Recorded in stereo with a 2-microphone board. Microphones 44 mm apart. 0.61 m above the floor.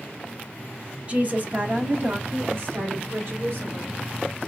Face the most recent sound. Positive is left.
turn(degrees=-60)  # may be behind; listen again after turning